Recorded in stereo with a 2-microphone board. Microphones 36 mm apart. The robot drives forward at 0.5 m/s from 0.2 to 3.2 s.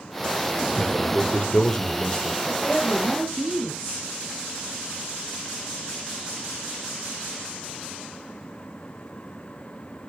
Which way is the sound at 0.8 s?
25° left (ahead or behind).